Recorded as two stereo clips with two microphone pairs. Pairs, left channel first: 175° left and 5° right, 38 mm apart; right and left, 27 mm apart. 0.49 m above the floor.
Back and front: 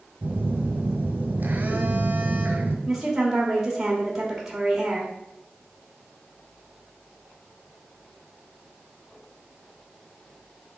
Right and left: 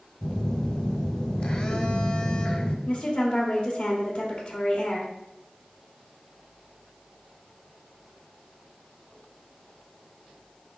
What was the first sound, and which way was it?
A phone buzzing, 45° right.